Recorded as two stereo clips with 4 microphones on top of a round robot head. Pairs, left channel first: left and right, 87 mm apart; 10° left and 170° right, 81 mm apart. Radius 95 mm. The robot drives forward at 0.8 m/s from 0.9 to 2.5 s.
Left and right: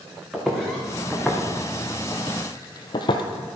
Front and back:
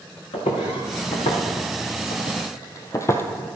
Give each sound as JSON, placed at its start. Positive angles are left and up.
{"t": 0.3, "sound": "footsteps", "azimuth_deg": 0, "distance_m": 3.0}